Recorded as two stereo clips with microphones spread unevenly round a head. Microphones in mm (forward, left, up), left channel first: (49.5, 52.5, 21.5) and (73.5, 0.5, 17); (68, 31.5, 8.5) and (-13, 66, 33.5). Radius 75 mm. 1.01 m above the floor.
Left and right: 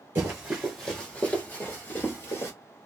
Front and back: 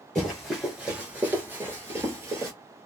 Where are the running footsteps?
125° right, 1.1 m; by 2.5 s 125° left, 1.6 m.